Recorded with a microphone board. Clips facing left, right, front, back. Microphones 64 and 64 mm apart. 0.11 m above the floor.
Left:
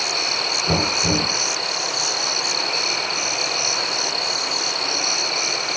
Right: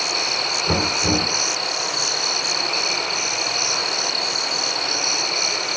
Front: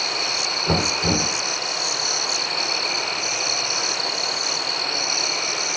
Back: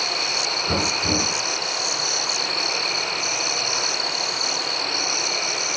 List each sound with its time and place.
0.7 s knocking: straight ahead, 2.5 m